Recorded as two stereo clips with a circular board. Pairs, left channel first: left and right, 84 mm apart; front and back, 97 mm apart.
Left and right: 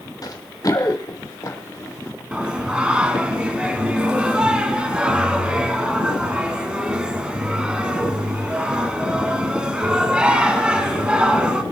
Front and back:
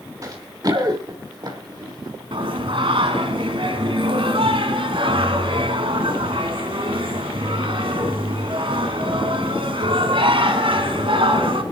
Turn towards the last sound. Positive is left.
turn(degrees=-170)